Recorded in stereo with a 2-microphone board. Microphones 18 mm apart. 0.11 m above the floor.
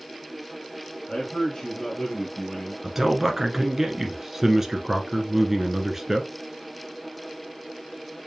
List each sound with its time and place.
1.1 s a man speaking: 35° left (ahead or behind), 2 m; by 2.7 s 5° left (ahead or behind), 1.8 m
2.8 s a man speaking: 20° right (ahead or behind), 1.1 m